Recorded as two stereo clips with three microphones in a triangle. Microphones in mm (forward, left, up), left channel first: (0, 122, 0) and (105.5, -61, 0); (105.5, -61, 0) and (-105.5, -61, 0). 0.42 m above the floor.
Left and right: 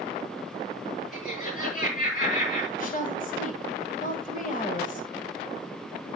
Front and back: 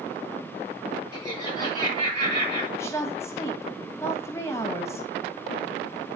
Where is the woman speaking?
75° left, 2.5 m.